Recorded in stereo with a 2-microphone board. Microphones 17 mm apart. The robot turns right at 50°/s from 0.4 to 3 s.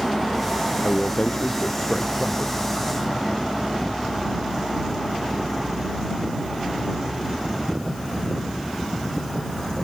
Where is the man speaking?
85° left; by 2.5 s 170° left.